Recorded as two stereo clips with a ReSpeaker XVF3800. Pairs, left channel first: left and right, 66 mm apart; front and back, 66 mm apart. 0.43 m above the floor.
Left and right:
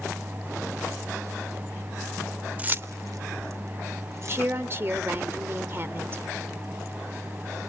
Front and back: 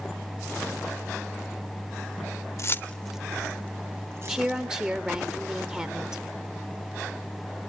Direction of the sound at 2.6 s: 25° right.